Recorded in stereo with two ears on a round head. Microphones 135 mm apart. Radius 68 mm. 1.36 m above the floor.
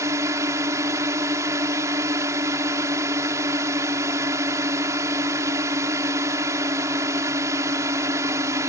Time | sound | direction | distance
0.0 | a drone | 20° right (ahead or behind) | ?